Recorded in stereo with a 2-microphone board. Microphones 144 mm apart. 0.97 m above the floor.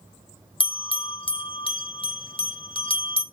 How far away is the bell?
About 0.5 m.